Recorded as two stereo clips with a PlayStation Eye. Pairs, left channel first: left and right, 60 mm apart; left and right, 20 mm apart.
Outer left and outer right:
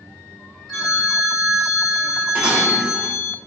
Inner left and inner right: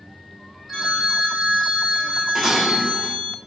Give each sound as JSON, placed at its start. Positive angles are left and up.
{"t": 0.7, "sound": "a phone ringing", "side_deg": 5, "distance_m": 1.0}
{"t": 2.4, "sound": "dishes clattering", "side_deg": -20, "distance_m": 0.5}